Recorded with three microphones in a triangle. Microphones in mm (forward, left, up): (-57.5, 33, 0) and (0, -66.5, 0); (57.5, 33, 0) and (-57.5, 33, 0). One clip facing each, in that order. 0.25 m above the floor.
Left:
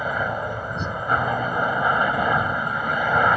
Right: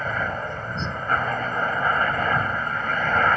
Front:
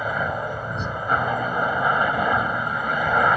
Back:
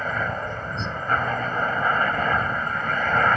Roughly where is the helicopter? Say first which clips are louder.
Left 2 dB, front 2 dB; ahead left.